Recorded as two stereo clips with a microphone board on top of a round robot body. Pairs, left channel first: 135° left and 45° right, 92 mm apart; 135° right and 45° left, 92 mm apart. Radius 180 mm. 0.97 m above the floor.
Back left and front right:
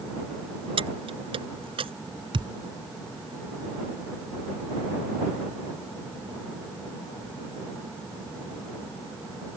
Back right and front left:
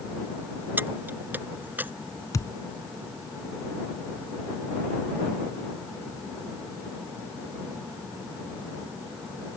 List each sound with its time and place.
0.8 s keys jangling: 25° right
2.3 s a thud: 80° right